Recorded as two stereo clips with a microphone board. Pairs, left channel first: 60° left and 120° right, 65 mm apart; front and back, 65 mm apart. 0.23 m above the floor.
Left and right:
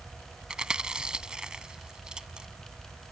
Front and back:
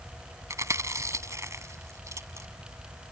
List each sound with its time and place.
0.5 s chewing: 165° left